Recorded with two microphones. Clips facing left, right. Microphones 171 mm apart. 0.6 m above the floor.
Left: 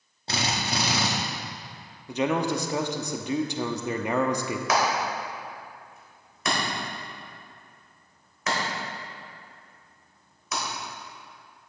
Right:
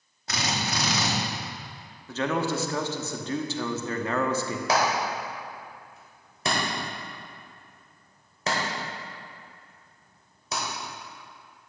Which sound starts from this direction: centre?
A man speaking, at 2.1 s.